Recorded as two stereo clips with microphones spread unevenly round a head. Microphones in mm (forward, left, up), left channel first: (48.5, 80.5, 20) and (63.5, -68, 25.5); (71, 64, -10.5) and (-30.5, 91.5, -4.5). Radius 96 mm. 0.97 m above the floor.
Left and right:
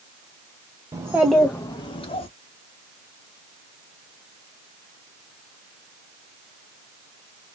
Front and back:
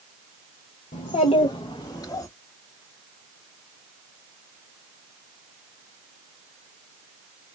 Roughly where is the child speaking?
Ahead.